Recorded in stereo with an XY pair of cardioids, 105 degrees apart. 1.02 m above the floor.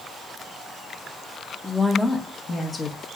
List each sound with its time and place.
1.6 s a woman speaking: 5° right, 1.0 m; by 3.0 s 35° left, 1.3 m